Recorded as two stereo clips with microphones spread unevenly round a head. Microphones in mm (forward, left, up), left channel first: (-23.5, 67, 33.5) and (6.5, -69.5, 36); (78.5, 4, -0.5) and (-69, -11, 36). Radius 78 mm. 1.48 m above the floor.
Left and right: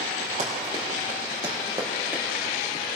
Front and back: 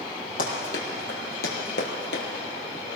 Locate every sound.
0.4 s running footsteps: 25° right, 3.5 m; by 2.2 s 5° right, 2.5 m